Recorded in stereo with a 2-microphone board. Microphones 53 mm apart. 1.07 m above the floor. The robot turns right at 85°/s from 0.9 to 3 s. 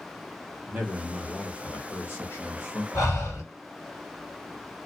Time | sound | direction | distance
0.7 | a man speaking | 40° right | 1.1 m
2.9 | breathing | 80° left | 1.9 m